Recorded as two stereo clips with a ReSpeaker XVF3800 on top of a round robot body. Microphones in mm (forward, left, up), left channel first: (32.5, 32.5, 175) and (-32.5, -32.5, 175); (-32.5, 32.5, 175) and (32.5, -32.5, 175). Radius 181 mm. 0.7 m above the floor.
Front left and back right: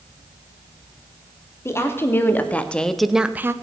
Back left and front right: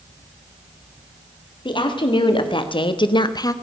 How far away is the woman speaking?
About 2.5 m.